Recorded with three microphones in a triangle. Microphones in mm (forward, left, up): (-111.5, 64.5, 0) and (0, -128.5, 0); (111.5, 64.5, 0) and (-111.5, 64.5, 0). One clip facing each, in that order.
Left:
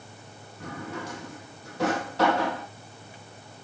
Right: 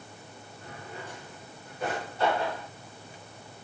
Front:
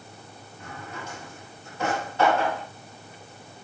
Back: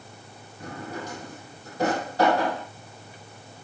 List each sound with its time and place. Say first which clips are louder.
0.6 s a drawer: left 8 dB, back 5 dB; 125° left, 3 m